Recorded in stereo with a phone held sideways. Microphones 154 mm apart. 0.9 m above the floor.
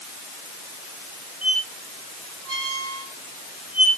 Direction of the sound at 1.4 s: 45° left (ahead or behind).